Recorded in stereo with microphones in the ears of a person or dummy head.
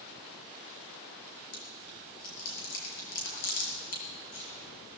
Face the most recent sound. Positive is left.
turn(degrees=70)  # may be behind; listen again after turning